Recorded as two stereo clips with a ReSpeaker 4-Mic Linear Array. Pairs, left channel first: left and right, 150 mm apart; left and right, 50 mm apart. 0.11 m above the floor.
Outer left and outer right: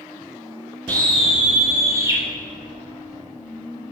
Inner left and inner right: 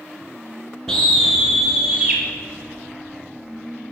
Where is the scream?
10° left (ahead or behind), 1.4 m; by 2.2 s 20° right (ahead or behind), 2.5 m.